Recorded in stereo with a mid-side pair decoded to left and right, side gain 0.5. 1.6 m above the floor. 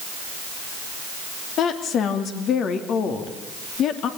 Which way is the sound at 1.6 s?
60° left.